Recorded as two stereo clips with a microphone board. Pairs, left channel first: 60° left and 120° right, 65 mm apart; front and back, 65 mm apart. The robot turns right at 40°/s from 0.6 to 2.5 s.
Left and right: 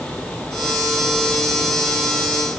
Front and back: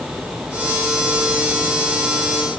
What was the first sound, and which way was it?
Only background noise.